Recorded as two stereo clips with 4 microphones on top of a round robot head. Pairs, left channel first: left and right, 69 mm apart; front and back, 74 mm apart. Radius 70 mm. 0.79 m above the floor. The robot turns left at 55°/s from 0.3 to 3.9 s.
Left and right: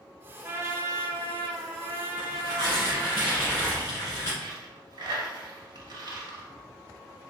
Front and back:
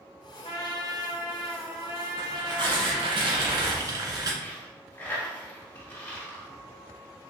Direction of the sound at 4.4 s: 65° right.